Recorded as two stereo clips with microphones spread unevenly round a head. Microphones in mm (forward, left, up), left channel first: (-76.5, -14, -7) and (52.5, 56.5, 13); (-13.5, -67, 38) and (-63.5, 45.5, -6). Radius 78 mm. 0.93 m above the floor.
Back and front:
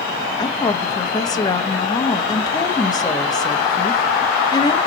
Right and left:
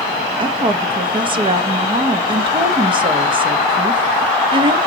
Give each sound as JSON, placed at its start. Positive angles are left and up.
{"t": 0.4, "sound": "a woman speaking", "azimuth_deg": 150, "distance_m": 1.1}